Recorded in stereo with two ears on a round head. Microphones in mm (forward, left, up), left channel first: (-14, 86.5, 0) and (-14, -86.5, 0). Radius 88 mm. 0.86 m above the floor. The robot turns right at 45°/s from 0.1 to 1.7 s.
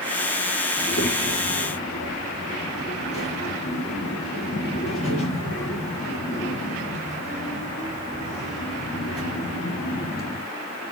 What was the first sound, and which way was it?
A child speaking, 35° left.